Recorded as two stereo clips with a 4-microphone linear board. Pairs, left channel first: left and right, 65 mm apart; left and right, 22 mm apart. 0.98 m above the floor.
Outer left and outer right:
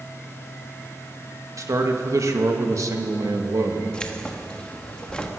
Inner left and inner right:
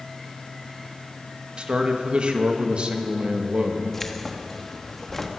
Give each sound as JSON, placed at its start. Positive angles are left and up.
{"t": 1.6, "sound": "a man speaking", "side_deg": -55, "distance_m": 1.5}
{"t": 3.9, "sound": "keys jangling", "side_deg": 15, "distance_m": 1.2}